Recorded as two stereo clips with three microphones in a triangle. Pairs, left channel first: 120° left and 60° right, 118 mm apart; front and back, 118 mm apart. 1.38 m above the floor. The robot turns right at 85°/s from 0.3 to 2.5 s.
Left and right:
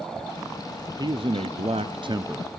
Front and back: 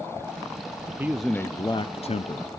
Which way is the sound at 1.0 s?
110° right.